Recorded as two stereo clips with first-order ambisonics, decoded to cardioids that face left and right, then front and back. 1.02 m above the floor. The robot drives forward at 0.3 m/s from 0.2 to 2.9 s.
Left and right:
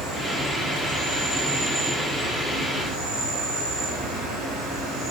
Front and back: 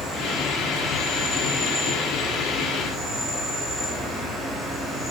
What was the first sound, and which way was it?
An insect, 80° right.